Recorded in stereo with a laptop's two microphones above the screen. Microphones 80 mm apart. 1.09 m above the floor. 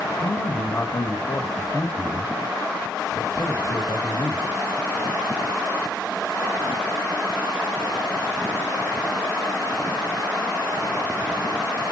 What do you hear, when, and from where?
0.2 s a man speaking: 40° left (ahead or behind), 1.6 m